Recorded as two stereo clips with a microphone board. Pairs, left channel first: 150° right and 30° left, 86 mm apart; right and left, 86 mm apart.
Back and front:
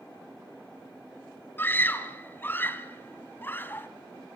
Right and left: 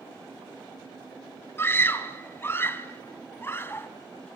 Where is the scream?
115° right, 1.1 m.